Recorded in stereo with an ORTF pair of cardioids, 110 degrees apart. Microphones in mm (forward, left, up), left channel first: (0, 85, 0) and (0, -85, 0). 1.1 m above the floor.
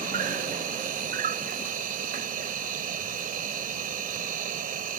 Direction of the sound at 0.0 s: 60° right.